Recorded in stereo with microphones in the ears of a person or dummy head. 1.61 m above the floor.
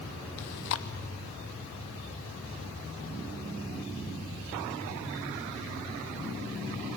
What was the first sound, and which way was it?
Chewing, 45° left (ahead or behind).